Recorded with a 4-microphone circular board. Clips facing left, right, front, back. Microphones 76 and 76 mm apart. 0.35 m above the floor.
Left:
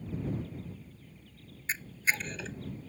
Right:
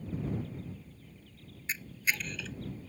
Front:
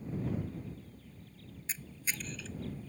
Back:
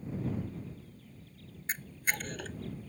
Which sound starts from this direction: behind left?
A camera shutter, at 1.7 s.